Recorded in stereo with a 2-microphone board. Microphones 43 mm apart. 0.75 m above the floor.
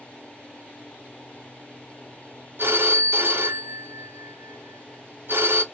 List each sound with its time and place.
2.6 s a phone ringing: 60° right (ahead or behind), 0.9 m